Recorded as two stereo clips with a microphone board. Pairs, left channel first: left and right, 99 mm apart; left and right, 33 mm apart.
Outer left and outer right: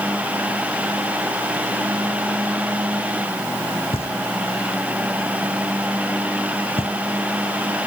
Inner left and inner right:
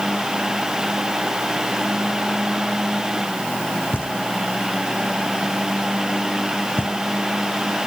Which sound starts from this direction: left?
Knocking, at 3.9 s.